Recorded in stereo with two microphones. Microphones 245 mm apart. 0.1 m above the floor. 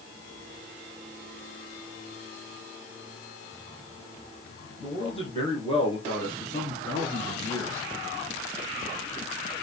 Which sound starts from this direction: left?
A man speaking, at 4.8 s.